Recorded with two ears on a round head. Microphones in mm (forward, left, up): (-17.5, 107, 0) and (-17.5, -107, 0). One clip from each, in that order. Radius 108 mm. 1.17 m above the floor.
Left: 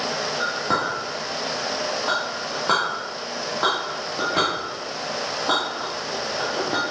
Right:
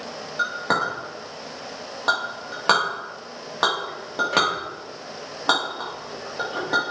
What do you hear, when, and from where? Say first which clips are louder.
0.4 s a clink: right 3 dB; 50° right (ahead or behind), 1.9 m